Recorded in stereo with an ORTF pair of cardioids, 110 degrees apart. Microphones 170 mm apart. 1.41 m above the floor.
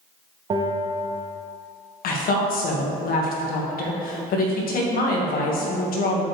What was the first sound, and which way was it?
A bell, 30° right.